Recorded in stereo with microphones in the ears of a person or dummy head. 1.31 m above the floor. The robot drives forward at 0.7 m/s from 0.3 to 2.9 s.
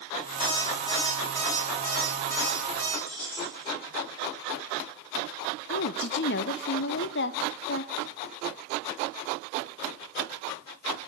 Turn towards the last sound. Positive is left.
turn(degrees=50)  # may be behind; listen again after turning